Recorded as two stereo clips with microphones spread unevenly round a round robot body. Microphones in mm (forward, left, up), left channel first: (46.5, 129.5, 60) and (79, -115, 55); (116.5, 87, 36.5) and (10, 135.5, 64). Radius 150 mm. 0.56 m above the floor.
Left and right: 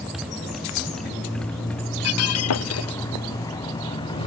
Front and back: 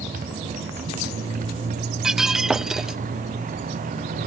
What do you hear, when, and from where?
0.0 s a motorcycle: 170° right; by 4.3 s 170° left
2.0 s breaking glass: 70° left